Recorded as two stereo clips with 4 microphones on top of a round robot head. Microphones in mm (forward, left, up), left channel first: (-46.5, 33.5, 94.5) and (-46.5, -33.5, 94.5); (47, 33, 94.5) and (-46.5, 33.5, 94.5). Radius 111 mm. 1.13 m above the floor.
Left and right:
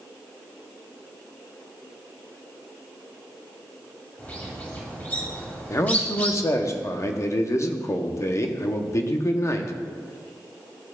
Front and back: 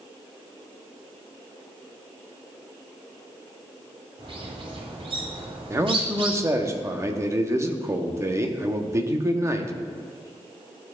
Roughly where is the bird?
Behind left.